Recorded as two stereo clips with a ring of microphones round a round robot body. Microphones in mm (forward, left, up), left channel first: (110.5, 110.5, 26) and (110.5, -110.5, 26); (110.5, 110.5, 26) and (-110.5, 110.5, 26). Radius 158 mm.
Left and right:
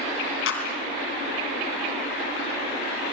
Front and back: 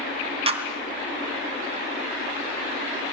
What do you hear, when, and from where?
0.5 s a clap: 120° left, 3 m